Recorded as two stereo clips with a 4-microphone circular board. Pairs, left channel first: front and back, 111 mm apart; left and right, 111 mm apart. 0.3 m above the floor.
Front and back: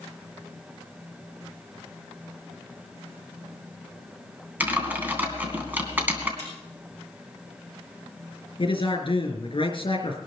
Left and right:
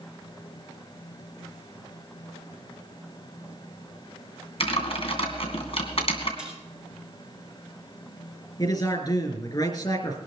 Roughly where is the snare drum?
Behind.